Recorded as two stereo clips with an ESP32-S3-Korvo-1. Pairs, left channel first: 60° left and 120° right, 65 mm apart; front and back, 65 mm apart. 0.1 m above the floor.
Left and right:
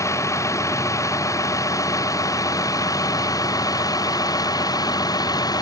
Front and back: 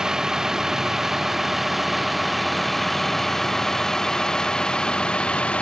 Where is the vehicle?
100° left; by 5.6 s 70° left.